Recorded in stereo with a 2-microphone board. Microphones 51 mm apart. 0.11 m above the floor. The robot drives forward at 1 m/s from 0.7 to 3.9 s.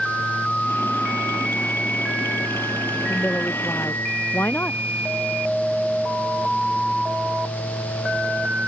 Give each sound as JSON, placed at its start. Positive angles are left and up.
{"t": 3.1, "sound": "a woman speaking", "side_deg": 45}